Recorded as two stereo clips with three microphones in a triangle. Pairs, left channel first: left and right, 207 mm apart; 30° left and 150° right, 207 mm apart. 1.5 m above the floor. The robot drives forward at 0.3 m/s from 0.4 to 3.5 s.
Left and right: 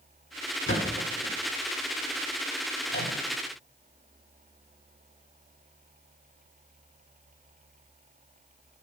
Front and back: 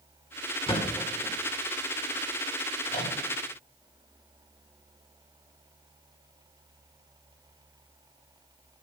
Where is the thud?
90° left, 2.5 m; by 1.3 s 95° left, 2.5 m.